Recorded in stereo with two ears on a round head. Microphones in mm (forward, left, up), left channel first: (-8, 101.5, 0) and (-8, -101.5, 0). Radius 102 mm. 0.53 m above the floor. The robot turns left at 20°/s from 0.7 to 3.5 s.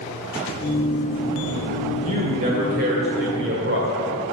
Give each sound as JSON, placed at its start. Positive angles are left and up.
{"t": 2.0, "sound": "a man speaking", "azimuth_deg": -35, "distance_m": 1.5}